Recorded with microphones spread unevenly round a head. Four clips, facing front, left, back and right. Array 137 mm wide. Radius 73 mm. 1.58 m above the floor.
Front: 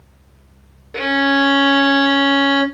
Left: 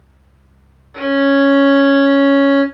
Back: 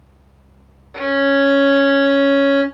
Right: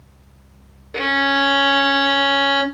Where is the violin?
50° right, 3.5 m.